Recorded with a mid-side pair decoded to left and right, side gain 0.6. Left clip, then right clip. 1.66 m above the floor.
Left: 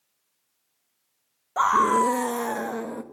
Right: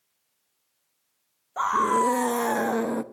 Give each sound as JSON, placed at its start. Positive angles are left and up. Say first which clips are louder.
{"t": 1.6, "sound": "a scream", "louder": "left 3 dB", "azimuth_deg": 30, "distance_m": 1.0}